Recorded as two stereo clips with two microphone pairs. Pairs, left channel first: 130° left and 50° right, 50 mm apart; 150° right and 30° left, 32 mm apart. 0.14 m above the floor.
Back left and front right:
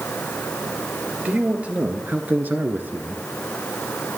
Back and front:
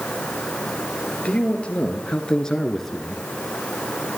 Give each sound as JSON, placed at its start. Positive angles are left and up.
{"t": 1.2, "sound": "a man speaking", "azimuth_deg": -105, "distance_m": 2.5}